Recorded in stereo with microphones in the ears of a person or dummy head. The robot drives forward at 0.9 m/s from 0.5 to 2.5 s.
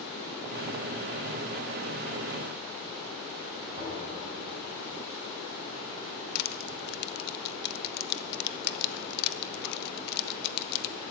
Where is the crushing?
60° left (ahead or behind), 0.8 m.